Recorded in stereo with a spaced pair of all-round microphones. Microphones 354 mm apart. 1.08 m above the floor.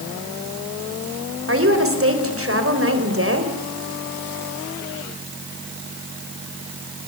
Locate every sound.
1.5 s a woman speaking: 40° right (ahead or behind), 4 m